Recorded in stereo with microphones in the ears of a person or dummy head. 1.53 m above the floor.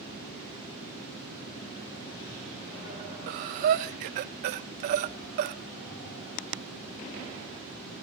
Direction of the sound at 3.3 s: 45° right (ahead or behind).